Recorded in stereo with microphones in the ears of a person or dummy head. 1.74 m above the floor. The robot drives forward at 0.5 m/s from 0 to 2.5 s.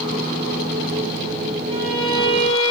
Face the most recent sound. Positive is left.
turn(degrees=-20)  # may be behind; listen again after turning